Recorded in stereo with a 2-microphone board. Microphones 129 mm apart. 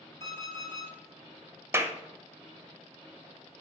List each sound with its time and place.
0.2 s an alarm clock: 20° left (ahead or behind), 2.5 m
1.7 s a clap: 20° right (ahead or behind), 0.7 m